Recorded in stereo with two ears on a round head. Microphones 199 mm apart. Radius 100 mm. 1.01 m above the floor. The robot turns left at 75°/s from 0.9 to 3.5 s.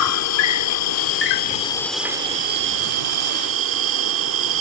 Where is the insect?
80° left; by 4.6 s 115° right.